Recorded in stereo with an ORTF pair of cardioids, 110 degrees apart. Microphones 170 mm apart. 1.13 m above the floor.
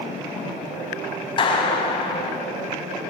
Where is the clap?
30° left, 5.5 m.